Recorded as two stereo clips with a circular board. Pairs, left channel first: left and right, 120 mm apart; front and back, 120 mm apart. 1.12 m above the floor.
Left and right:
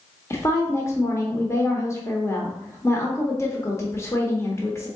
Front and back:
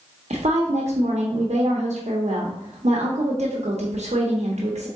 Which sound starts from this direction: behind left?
A woman speaking, at 0.3 s.